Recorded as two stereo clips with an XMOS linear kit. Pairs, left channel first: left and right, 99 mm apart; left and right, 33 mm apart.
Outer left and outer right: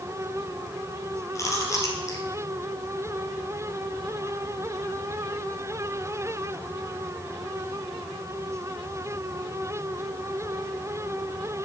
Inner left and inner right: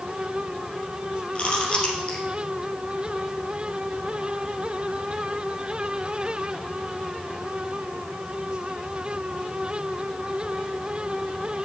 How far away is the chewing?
About 2.5 m.